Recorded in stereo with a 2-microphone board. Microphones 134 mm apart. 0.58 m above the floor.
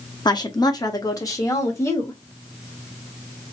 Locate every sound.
0.2 s a woman speaking: 35° left (ahead or behind), 0.7 m; by 2.2 s 20° left (ahead or behind), 1.7 m